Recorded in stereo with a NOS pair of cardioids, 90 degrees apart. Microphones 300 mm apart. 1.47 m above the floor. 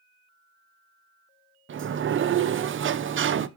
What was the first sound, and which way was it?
A sliding door, 40° right.